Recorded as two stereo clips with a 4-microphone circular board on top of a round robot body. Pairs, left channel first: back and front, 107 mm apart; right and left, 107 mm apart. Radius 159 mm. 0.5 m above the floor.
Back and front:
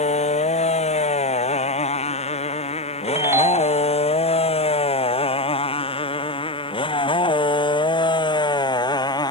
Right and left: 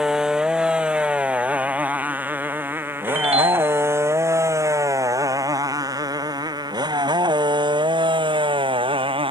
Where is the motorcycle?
175° left; by 9.3 s 130° left.